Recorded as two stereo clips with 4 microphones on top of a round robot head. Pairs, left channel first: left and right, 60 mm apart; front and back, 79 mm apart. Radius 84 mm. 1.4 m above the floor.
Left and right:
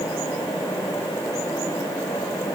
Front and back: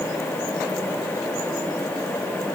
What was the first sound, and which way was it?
Only background noise.